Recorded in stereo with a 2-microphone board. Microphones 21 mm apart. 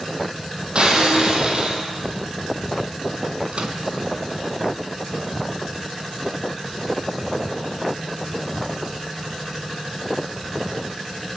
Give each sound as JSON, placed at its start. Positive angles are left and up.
{"t": 0.8, "sound": "breaking glass", "side_deg": -45, "distance_m": 6.5}
{"t": 3.5, "sound": "a microwave", "side_deg": -55, "distance_m": 3.0}